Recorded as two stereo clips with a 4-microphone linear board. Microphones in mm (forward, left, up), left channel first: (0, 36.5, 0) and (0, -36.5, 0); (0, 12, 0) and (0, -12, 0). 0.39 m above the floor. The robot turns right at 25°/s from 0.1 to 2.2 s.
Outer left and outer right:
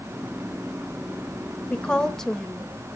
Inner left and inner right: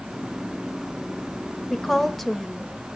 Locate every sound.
1.7 s a woman speaking: 15° left (ahead or behind), 1.2 m; by 2.7 s 5° left (ahead or behind), 1.2 m